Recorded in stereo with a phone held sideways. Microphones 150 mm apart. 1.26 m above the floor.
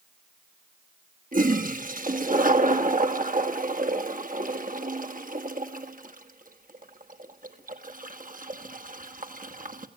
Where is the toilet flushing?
65° right (ahead or behind), 1.5 m.